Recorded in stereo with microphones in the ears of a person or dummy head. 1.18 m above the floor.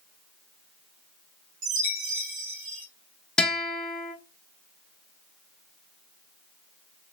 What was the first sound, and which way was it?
A chime, 65° right (ahead or behind).